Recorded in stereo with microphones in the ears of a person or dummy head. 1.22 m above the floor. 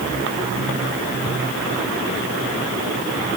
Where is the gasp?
I don't hear a gasp.